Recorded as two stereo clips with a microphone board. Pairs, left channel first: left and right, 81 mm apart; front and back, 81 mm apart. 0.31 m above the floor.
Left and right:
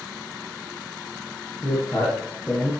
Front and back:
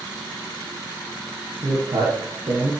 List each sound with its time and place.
1.6 s a man speaking: 155° left, 8.5 m